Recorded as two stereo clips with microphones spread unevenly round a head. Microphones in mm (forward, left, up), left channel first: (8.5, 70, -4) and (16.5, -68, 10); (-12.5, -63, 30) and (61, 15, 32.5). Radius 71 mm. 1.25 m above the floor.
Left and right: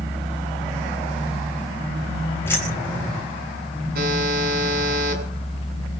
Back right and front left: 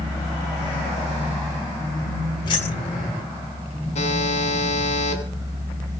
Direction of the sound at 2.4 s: 170° left.